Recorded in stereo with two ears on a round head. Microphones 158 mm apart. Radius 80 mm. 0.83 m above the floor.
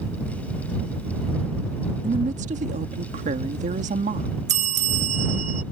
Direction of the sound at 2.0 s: 45° right (ahead or behind).